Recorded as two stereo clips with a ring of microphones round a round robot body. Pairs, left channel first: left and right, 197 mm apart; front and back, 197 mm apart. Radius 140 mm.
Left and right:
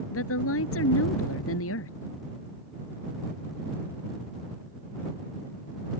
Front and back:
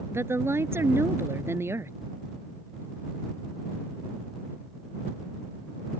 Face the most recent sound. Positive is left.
turn(degrees=100)